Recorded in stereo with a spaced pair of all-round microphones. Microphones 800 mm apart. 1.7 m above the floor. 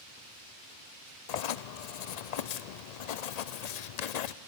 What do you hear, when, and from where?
1.3 s writing: 60° left (ahead or behind), 0.5 m